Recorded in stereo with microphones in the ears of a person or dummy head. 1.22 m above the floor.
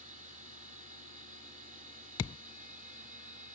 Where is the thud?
20° left (ahead or behind).